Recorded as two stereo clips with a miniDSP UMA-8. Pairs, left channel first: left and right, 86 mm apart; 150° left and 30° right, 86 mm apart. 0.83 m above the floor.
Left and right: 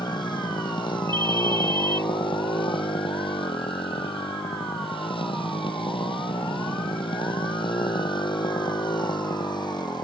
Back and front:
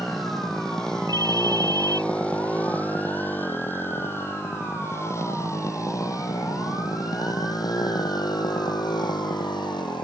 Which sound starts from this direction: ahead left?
A motorcycle, at 0.0 s.